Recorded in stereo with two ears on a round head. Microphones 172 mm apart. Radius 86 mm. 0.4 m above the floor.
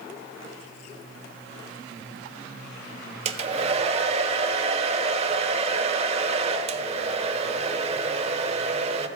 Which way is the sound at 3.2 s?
35° right (ahead or behind).